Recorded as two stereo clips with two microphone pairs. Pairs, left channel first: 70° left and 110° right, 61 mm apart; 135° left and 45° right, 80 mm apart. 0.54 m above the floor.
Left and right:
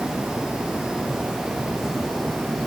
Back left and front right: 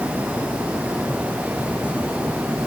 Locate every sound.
Only background noise.